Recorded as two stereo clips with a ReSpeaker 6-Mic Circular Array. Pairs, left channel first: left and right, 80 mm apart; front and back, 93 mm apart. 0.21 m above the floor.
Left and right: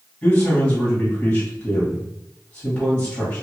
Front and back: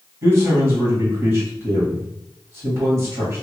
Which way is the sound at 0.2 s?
150° left.